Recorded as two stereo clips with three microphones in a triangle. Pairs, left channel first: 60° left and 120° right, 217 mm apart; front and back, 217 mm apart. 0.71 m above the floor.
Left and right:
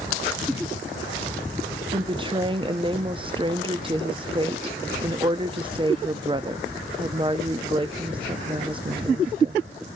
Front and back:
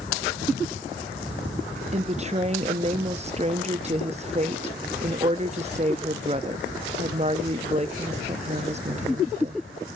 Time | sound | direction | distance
1.9 | a woman speaking | 160° right | 0.5 m